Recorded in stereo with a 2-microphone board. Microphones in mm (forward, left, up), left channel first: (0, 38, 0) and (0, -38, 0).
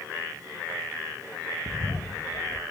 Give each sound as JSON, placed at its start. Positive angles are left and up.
{"t": 1.7, "sound": "a bird", "side_deg": 40, "distance_m": 3.5}